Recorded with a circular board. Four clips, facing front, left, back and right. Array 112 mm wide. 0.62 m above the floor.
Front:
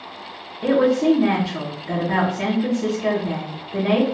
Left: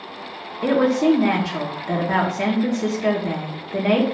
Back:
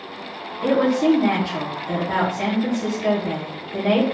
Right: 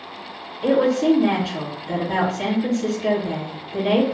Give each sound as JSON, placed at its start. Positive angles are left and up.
{"t": 0.6, "sound": "a woman speaking", "azimuth_deg": 85, "distance_m": 1.3}